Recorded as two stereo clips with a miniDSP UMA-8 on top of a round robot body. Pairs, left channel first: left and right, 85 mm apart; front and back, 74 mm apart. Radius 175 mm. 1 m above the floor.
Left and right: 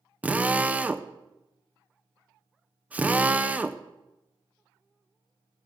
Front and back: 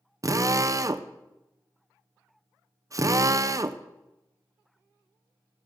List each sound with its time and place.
0.2 s a drill: 155° right, 0.7 m